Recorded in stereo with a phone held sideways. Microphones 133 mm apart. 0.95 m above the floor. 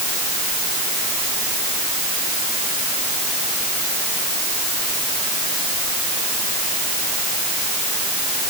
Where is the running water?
I don't hear running water.